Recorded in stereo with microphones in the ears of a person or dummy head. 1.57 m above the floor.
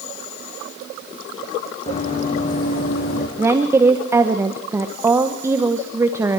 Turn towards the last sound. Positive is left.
turn(degrees=-15)  # may be behind; listen again after turning